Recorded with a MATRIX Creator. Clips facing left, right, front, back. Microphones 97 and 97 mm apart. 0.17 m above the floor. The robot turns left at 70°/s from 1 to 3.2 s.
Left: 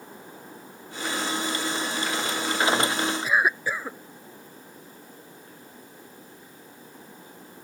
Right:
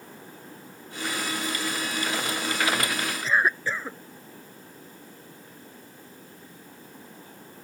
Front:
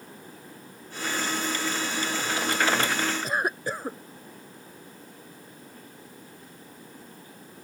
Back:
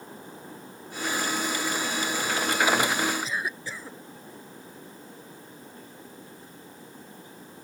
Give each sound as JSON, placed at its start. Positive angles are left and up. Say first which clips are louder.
{"t": 3.2, "sound": "a cough", "louder": "right 2 dB, front 5 dB", "azimuth_deg": 15}